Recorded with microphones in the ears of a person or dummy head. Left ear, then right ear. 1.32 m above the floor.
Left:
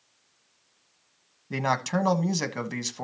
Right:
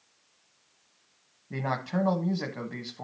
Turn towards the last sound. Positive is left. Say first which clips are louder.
# left 5 dB
turn(degrees=65)  # may be behind; listen again after turning